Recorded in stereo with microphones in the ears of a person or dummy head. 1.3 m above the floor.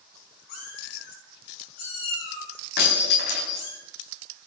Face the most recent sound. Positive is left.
turn(degrees=55)  # may be behind; listen again after turning